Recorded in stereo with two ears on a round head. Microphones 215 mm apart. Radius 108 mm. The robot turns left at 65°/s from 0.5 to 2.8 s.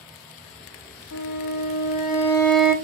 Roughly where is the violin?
Left.